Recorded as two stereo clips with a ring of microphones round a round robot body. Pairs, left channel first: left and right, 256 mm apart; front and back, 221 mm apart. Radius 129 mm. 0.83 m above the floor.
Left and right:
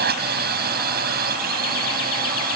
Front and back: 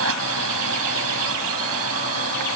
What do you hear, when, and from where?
0.0 s a drone: 145° right